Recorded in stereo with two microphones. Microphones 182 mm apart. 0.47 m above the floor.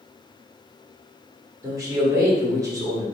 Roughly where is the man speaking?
Centre.